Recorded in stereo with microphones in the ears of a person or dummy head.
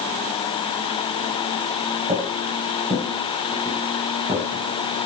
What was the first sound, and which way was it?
Footsteps, 30° right (ahead or behind).